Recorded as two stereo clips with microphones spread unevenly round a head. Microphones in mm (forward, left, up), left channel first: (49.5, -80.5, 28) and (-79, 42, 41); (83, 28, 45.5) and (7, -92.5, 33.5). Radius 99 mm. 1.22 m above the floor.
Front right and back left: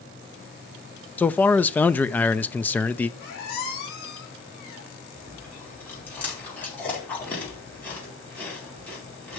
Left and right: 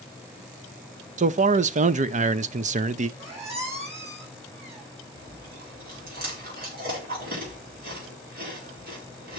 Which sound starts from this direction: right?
A squeak, at 3.2 s.